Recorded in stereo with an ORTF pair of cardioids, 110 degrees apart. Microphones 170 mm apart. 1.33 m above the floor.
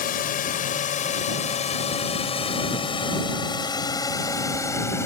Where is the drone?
60° left; by 5.0 s 15° left.